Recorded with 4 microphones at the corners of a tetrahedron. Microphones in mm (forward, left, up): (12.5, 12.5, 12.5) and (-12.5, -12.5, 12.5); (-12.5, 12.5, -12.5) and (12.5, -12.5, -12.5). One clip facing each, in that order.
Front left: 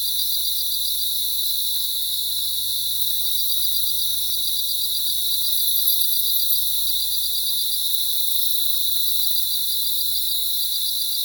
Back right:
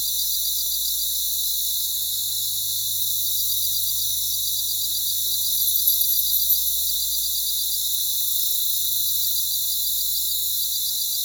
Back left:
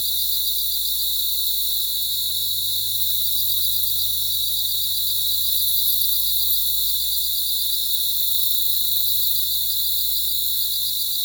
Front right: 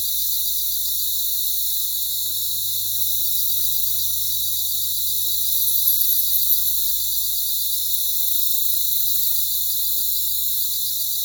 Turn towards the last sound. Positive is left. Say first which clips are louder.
# front left 3 dB, back left 4 dB
turn(degrees=95)